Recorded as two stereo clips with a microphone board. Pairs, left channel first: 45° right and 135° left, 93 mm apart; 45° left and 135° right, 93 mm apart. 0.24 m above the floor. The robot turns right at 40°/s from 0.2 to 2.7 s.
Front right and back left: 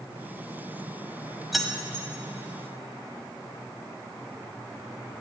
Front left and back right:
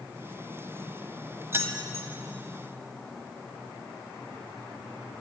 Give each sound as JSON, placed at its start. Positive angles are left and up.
{"t": 1.5, "sound": "keys jangling", "azimuth_deg": -140, "distance_m": 0.9}